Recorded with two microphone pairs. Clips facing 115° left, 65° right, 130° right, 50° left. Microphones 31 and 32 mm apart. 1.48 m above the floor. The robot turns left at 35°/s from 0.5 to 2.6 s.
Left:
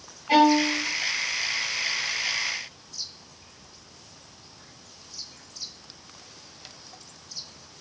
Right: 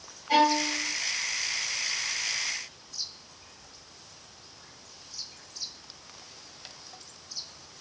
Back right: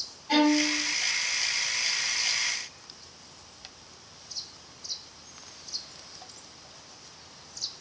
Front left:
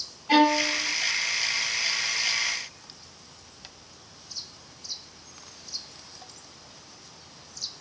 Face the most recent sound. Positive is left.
turn(degrees=25)